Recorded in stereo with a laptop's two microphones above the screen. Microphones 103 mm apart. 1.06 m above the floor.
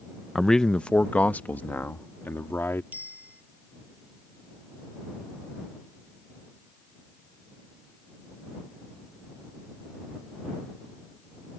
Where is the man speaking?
Centre (ahead or behind); by 2.8 s 25° left (ahead or behind).